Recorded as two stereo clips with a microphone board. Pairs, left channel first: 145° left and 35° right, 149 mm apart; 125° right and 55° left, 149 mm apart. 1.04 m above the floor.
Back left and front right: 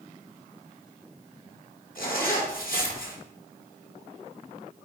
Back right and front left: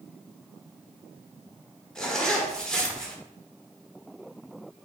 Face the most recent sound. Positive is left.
turn(degrees=150)